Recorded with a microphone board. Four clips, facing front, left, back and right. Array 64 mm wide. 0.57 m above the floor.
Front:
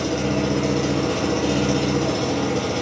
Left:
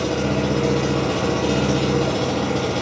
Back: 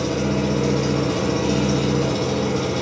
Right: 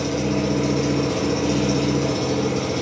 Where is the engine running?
70° left, 0.7 m.